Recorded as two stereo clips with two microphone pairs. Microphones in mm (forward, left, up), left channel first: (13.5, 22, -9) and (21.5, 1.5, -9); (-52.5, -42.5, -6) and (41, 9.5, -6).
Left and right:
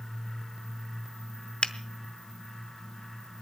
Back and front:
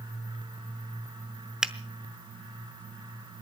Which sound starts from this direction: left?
A finger snap, at 1.6 s.